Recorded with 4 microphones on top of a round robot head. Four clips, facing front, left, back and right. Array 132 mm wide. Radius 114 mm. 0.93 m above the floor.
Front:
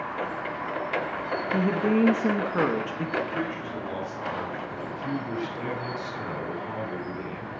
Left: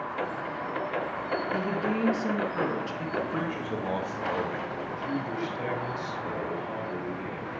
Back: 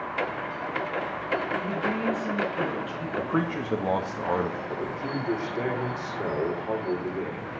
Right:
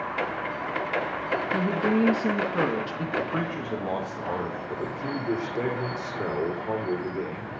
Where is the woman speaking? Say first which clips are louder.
Right 7 dB, front 5 dB; 25° right, 1.7 m.